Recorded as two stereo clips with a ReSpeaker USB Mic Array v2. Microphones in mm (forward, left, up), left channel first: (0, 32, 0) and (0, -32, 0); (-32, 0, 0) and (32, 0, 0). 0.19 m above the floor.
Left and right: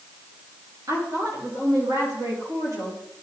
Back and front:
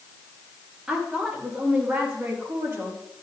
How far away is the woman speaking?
About 4 m.